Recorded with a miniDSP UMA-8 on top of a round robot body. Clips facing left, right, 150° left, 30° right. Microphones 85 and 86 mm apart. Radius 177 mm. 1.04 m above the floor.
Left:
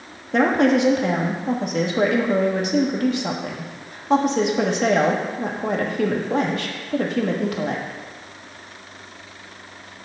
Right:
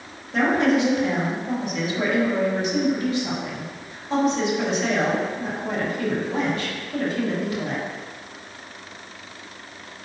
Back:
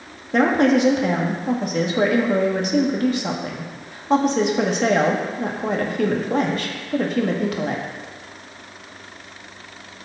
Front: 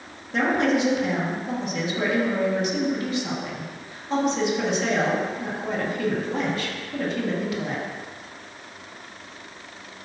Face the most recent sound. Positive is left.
turn(degrees=115)